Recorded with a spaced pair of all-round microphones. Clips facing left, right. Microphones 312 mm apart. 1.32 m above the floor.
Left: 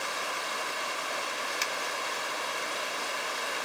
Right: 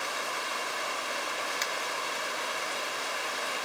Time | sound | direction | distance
1.6 | a finger snap | 35° left (ahead or behind) | 0.8 m